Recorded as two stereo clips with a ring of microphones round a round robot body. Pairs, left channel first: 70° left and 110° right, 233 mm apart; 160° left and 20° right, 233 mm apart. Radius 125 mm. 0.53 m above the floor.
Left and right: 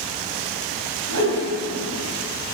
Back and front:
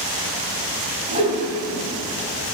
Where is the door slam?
No door slam in this recording.